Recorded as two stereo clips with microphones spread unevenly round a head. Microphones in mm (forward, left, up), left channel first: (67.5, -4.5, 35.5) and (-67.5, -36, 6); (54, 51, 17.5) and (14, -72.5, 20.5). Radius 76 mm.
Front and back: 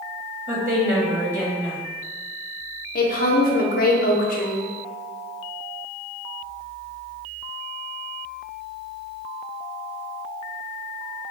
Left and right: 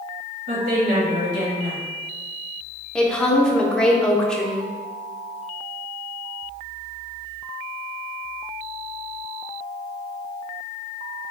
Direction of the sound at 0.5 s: 95° right.